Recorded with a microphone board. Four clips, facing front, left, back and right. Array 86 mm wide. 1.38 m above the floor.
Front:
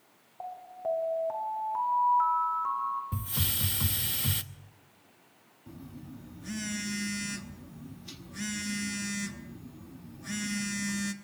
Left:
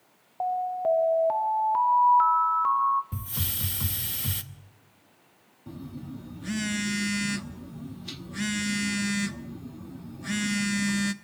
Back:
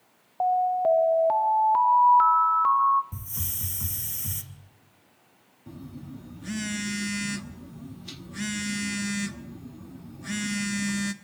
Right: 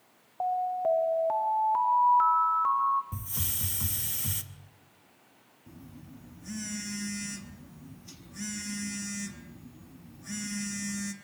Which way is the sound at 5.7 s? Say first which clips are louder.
Left 10 dB, back 4 dB; 115° left.